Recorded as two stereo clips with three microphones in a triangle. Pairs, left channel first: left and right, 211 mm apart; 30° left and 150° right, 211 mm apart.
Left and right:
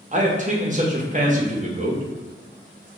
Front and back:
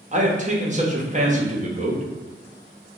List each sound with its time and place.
0.1 s a man speaking: 120° right, 0.8 m